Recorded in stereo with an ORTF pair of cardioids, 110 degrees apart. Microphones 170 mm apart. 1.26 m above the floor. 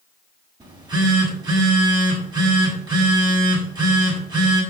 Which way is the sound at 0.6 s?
25° right.